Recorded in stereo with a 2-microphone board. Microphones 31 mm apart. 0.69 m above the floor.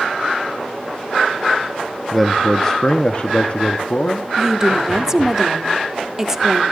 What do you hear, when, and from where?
2.1 s a man speaking: 5° left (ahead or behind), 0.9 m; by 4.3 s 55° left (ahead or behind), 1.4 m
4.4 s a woman speaking: 15° right (ahead or behind), 1.3 m